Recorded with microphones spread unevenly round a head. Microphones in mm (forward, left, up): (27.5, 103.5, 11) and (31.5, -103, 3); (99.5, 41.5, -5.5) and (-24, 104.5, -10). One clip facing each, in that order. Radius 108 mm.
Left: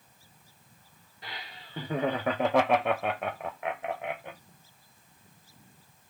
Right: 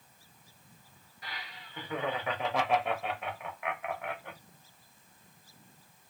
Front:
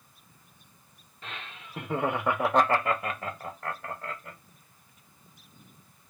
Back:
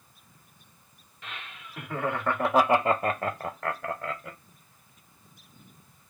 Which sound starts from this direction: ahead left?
Laughter, at 1.2 s.